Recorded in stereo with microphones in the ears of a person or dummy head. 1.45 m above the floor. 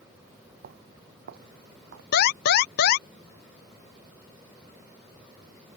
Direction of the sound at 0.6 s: 60° right (ahead or behind).